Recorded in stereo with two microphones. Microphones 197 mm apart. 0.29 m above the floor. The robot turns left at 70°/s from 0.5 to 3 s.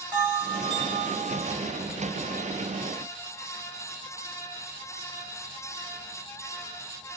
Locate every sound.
0.1 s a bell: 20° right, 1.3 m; by 1.6 s 90° right, 1.3 m